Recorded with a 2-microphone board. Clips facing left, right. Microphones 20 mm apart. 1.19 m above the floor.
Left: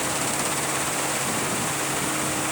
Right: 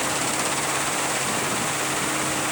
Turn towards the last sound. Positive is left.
No sound to turn to.